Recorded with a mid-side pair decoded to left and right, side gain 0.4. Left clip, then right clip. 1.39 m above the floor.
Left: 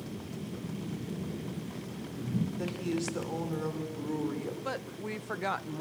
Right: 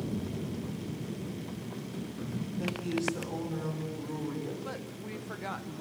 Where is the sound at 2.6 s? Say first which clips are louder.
Right 4 dB; 40° left, 5 m.